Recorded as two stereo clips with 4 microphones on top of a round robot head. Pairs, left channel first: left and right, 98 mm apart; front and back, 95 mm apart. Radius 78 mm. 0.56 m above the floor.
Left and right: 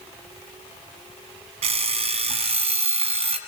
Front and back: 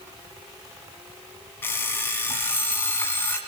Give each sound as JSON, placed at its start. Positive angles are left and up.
{"t": 1.6, "sound": "an alarm clock", "azimuth_deg": -75, "distance_m": 2.0}